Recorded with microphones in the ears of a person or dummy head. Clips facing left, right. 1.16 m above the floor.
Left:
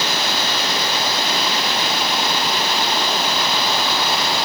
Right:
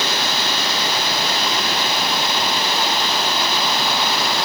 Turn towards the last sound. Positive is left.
No sound to turn to.